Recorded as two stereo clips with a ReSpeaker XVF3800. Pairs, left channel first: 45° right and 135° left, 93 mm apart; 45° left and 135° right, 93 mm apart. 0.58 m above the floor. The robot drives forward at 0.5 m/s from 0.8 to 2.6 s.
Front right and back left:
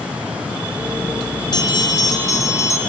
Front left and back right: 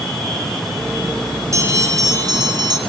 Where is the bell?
80° right, 1.6 m; by 2.8 s 100° right, 1.6 m.